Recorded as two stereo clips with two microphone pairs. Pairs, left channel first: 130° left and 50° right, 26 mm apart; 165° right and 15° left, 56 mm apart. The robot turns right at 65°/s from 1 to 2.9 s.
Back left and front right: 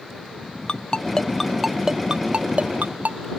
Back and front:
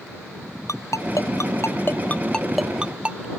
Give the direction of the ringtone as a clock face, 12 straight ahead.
6 o'clock.